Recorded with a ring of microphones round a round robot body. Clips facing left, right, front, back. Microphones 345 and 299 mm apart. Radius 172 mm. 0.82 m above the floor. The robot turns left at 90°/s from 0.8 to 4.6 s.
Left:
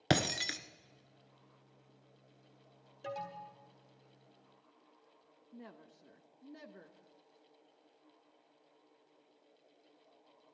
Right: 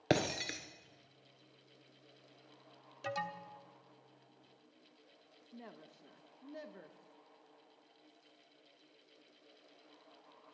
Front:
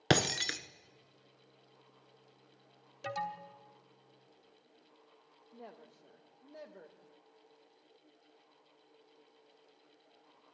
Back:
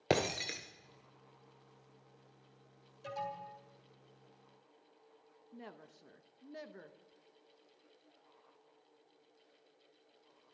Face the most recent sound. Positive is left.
turn(degrees=175)